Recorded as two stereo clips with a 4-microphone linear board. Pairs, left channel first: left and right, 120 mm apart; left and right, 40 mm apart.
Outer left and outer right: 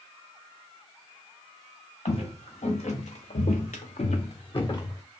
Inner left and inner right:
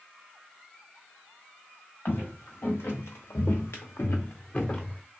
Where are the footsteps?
60° left (ahead or behind), 1.5 m; by 5.0 s 20° left (ahead or behind), 0.7 m.